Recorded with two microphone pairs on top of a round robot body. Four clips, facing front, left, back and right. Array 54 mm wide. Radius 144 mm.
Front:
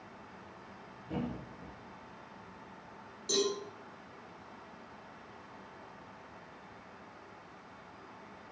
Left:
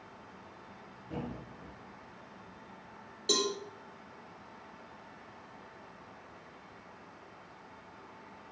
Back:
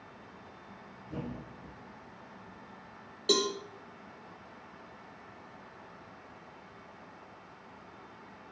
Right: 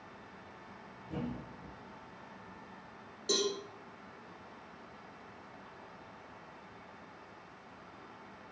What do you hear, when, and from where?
1.1 s a thud: 15° left, 6.5 m
3.3 s a cowbell: 170° left, 3 m